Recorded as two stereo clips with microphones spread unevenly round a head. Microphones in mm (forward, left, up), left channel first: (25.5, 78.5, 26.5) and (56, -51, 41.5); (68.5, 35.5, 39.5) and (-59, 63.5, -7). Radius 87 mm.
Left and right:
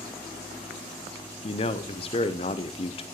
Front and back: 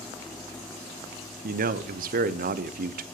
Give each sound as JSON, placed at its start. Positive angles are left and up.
{"t": 1.4, "sound": "a man speaking", "azimuth_deg": 160, "distance_m": 0.7}